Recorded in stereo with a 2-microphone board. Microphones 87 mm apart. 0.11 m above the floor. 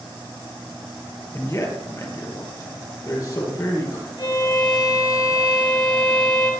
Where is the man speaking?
35° left (ahead or behind), 2 m; by 4.1 s 40° left (ahead or behind), 3.5 m.